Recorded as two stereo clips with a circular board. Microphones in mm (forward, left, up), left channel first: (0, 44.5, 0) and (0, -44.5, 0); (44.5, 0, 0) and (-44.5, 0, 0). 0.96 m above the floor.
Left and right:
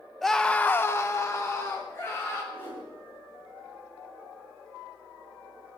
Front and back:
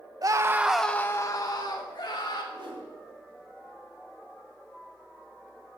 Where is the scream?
175° left, 0.7 m; by 2.4 s 30° left, 1.8 m.